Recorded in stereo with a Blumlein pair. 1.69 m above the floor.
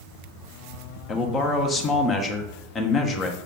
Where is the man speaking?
20° left, 1.2 m.